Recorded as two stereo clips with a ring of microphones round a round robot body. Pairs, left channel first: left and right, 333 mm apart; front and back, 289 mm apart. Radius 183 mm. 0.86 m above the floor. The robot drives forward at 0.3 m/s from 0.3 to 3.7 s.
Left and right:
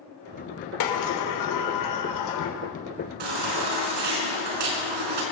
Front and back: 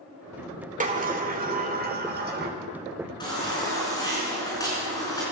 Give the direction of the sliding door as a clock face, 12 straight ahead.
8 o'clock.